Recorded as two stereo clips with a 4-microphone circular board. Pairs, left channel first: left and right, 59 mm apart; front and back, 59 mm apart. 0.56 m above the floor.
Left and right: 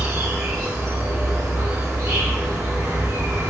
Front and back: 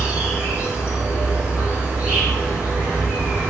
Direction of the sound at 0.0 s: 115° right.